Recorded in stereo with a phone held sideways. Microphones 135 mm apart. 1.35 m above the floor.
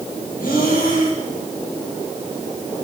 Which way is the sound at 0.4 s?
85° left.